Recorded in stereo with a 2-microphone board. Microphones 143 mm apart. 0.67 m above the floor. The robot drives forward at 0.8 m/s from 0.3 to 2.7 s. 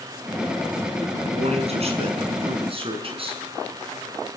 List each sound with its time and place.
1.3 s a man speaking: 50° right (ahead or behind), 5.5 m; by 3.4 s 40° right (ahead or behind), 6 m